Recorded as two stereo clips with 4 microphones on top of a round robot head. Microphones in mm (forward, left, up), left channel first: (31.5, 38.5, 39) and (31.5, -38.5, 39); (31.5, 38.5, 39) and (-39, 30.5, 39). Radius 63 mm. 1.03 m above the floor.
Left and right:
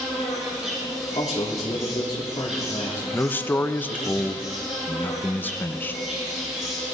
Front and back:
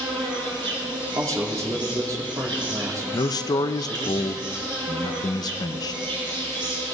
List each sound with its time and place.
0.0 s an insect: 175° right, 3.5 m
1.1 s a man speaking: 145° left, 3 m
3.1 s a man speaking: 25° left, 0.6 m